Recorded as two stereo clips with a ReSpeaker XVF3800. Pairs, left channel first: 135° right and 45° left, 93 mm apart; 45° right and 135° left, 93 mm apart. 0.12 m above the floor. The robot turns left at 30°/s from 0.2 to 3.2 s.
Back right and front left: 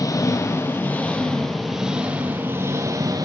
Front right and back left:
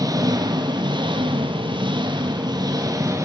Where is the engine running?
175° left, 3 m; by 3.2 s 85° left, 3 m.